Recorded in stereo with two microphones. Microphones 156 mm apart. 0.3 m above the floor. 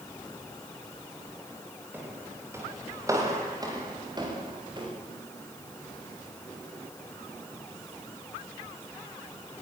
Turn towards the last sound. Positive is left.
turn(degrees=-35)  # may be behind; listen again after turning